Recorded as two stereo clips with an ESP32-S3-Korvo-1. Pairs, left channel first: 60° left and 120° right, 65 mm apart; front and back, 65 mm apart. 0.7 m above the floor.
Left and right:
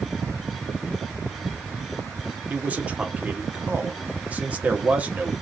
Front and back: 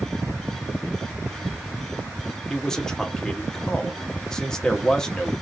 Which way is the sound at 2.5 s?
75° right.